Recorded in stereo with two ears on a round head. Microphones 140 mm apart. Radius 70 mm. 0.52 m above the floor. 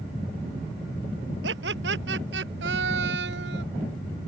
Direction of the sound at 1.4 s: 85° right.